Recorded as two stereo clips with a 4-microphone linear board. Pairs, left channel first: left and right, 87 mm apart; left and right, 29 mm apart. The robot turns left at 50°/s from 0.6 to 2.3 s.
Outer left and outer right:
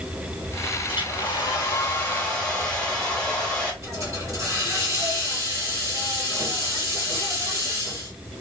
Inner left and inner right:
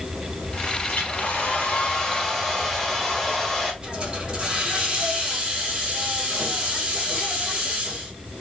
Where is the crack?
No crack in this recording.